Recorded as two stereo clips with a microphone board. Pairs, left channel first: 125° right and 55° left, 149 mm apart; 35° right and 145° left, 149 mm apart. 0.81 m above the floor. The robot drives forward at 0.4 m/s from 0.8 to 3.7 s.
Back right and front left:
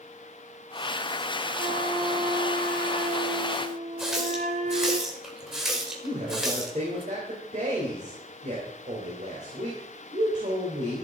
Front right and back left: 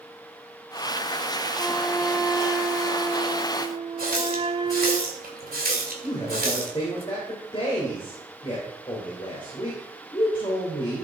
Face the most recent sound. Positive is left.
turn(degrees=20)